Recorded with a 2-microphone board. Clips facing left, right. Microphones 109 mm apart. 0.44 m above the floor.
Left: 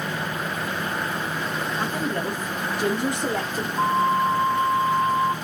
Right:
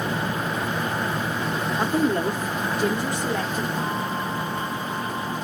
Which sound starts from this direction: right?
A woman speaking, at 1.8 s.